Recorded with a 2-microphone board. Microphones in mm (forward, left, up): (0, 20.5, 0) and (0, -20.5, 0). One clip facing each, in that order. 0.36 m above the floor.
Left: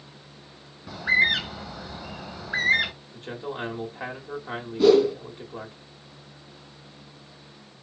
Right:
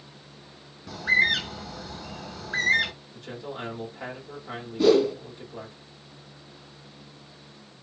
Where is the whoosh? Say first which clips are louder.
Left 2 dB; centre (ahead or behind), 0.7 m.